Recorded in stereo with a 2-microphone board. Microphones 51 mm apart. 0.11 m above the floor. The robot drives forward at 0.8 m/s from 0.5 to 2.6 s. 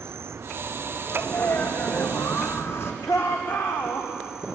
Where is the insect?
55° right (ahead or behind), 0.8 m; by 4.6 s 15° right (ahead or behind), 2 m.